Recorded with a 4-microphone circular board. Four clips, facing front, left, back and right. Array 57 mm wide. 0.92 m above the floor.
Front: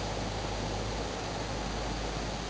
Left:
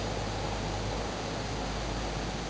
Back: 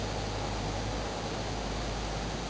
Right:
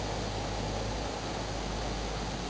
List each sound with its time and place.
Only background noise.